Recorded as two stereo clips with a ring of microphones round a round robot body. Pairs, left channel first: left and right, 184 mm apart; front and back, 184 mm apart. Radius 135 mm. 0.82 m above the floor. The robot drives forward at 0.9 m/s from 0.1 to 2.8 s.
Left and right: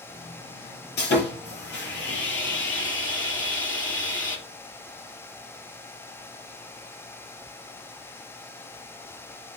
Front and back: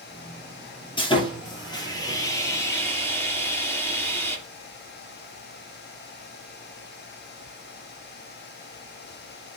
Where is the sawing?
65° left, 6.5 m; by 4.4 s 80° left, 6 m.